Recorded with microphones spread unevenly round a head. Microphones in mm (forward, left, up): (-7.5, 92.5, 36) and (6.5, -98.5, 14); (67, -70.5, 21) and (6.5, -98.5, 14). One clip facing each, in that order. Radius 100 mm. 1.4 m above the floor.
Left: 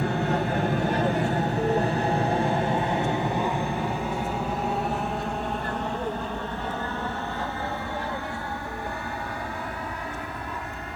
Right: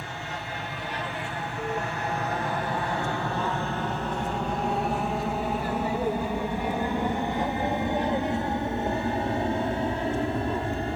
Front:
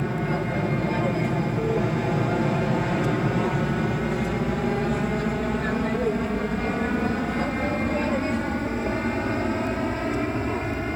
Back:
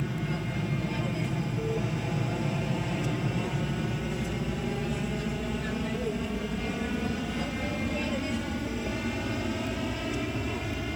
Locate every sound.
0.0 s an aircraft: 70° left; by 11.0 s 25° right